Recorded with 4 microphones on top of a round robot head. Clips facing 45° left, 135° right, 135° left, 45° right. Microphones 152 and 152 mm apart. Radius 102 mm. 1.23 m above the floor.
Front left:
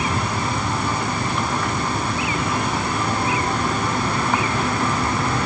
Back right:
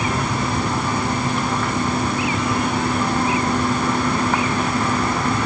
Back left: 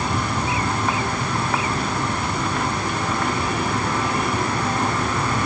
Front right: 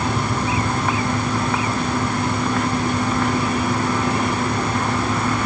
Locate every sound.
Only background noise.